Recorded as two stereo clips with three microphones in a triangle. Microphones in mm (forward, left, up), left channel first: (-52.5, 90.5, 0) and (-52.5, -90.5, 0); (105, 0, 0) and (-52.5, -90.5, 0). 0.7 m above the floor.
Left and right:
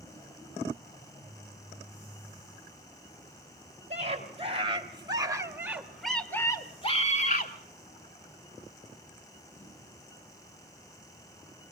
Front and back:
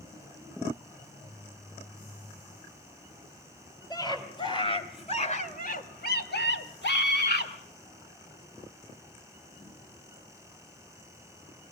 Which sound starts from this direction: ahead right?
A scream, at 3.9 s.